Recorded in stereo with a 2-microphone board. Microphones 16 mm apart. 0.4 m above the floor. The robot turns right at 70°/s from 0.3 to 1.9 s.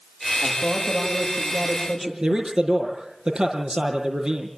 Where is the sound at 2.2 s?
80° right, 5.5 m.